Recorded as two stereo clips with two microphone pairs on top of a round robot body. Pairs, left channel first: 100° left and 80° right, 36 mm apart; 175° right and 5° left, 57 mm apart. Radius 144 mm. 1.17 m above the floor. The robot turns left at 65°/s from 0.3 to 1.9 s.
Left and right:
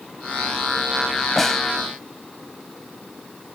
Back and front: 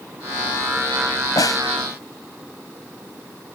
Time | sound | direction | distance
1.4 | a snare drum | 170° right | ?